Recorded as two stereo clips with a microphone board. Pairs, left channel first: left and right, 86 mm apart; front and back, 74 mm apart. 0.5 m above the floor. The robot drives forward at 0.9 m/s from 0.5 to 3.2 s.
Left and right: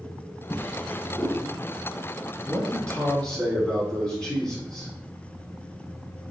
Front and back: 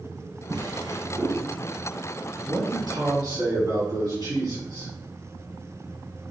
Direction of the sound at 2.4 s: 170° left.